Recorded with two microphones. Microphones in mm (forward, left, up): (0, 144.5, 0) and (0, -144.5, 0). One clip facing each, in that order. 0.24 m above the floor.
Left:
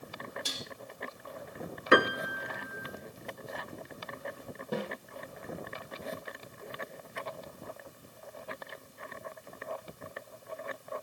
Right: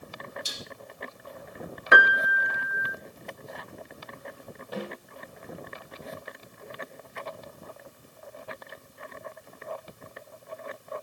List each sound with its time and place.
0.5 s dishes clattering: 70° left (ahead or behind), 4.5 m
1.9 s a piano: 35° left (ahead or behind), 1.0 m
4.7 s a snare drum: 55° left (ahead or behind), 8 m